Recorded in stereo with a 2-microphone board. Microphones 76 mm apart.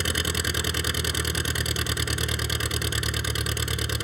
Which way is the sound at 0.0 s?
Centre (ahead or behind).